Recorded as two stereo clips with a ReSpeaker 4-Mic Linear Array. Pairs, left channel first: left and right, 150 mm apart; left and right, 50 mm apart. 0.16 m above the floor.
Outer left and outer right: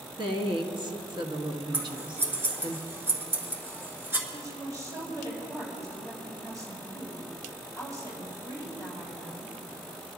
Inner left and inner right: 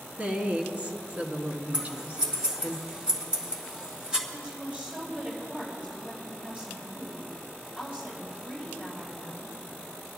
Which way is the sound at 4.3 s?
25° right (ahead or behind).